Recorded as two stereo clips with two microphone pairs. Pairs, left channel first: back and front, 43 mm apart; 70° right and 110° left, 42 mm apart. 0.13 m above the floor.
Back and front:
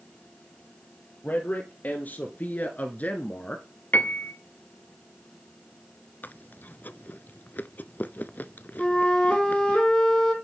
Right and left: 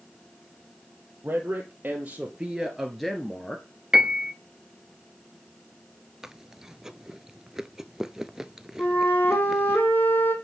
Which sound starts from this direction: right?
A flute, at 8.8 s.